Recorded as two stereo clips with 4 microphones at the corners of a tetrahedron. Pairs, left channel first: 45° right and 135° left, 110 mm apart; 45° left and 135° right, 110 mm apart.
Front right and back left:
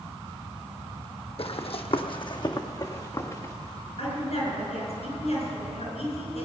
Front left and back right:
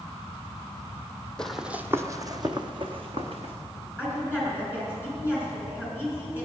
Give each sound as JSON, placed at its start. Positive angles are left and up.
{"t": 1.4, "sound": "running footsteps", "azimuth_deg": -35, "distance_m": 0.9}
{"t": 4.0, "sound": "a woman speaking", "azimuth_deg": -60, "distance_m": 6.0}